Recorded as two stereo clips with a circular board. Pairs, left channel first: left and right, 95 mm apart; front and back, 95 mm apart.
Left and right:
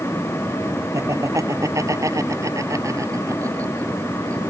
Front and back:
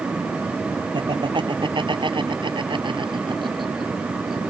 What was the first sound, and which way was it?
Laughter, 145° right.